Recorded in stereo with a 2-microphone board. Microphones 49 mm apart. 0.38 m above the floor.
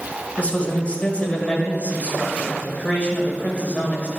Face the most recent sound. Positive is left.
turn(degrees=30)  # may be behind; listen again after turning